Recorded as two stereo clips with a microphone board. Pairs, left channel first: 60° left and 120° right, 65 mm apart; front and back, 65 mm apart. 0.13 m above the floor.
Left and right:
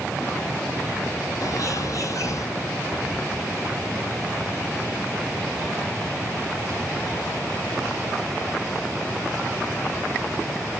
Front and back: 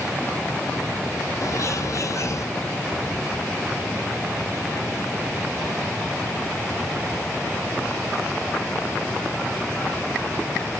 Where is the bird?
30° left, 0.9 m.